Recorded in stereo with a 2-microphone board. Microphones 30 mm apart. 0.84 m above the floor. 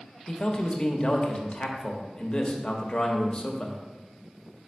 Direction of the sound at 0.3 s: 25° left (ahead or behind).